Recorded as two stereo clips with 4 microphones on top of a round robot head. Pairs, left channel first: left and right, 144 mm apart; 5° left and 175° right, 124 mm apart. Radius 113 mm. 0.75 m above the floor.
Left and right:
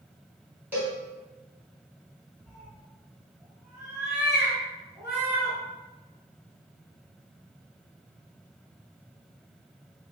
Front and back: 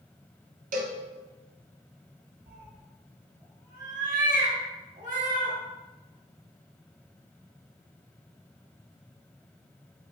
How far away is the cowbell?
About 0.8 m.